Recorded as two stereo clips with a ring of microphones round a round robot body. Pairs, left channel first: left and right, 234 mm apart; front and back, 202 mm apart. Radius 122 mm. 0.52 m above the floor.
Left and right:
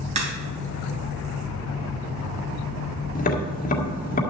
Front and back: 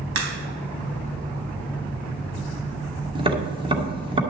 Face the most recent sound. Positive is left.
turn(degrees=125)